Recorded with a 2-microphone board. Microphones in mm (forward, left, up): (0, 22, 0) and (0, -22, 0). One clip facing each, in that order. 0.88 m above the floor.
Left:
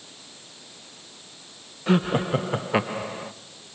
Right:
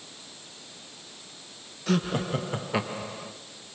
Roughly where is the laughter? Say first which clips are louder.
Left 5 dB; centre.